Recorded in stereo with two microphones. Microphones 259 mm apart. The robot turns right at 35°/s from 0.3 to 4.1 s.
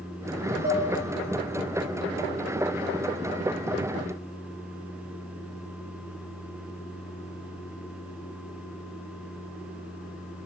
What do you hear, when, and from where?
0.6 s dishes clattering: 35° right (ahead or behind), 5 m; by 0.9 s 30° right (ahead or behind), 5 m